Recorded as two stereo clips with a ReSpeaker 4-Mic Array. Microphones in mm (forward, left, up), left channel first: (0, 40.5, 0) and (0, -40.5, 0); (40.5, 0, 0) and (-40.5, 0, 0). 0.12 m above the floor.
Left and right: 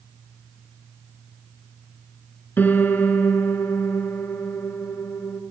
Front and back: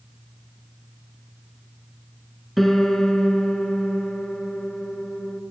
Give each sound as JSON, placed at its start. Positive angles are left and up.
{"t": 2.6, "sound": "a piano", "azimuth_deg": 85, "distance_m": 0.7}